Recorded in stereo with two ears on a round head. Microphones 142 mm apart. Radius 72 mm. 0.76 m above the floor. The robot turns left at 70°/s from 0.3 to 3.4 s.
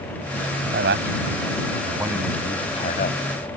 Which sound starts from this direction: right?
A man speaking, at 0.7 s.